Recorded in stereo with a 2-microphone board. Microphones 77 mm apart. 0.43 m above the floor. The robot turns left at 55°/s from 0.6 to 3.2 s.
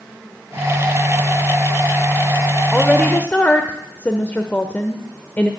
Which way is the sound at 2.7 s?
Centre (ahead or behind).